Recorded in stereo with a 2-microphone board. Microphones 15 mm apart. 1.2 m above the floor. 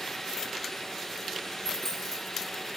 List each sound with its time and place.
1.6 s a dropped coin: 25° left (ahead or behind), 3 m